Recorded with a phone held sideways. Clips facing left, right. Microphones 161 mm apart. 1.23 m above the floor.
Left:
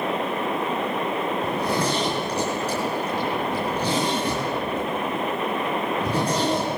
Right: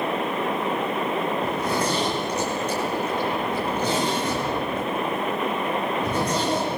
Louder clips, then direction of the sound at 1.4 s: Even; 30° left (ahead or behind).